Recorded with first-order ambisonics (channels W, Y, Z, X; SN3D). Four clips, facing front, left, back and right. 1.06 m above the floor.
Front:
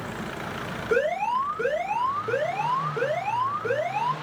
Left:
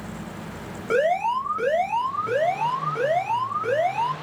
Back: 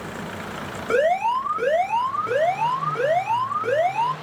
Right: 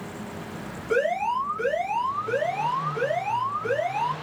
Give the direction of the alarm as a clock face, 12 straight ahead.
7 o'clock.